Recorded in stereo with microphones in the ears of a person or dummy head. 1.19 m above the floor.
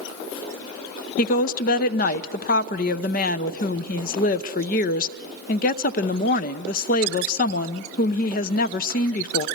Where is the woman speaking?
50° left (ahead or behind), 0.8 m.